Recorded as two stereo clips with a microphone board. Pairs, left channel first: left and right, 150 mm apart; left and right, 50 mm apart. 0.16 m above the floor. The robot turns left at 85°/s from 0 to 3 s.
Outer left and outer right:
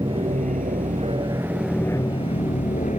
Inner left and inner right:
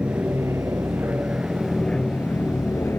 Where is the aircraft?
30° right (ahead or behind); by 3.0 s 50° left (ahead or behind).